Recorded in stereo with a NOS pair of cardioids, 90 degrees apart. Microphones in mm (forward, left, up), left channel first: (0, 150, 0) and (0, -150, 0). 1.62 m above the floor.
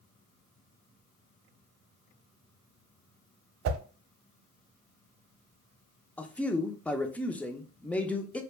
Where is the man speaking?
5° left, 0.5 m.